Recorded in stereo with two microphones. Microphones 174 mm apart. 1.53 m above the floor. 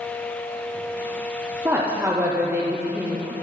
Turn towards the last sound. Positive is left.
turn(degrees=-15)  # may be behind; listen again after turning